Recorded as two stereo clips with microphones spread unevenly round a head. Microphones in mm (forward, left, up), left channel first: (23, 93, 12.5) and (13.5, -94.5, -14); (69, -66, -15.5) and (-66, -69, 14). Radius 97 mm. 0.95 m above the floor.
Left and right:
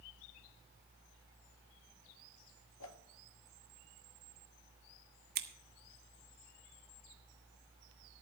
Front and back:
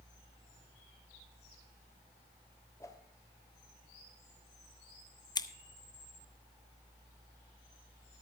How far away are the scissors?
About 1.2 m.